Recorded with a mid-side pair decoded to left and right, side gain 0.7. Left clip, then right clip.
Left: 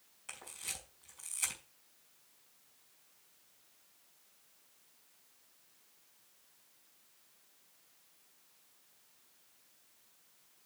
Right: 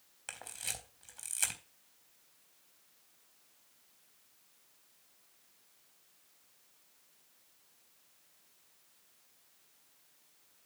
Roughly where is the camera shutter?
Ahead right.